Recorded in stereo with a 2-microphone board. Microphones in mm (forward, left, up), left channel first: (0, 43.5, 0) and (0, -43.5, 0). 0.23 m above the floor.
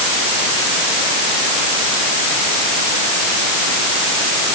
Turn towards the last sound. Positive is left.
No sound to turn to.